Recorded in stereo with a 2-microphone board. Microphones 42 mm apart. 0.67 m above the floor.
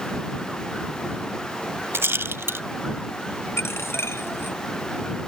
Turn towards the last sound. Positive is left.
turn(degrees=75)  # may be behind; listen again after turning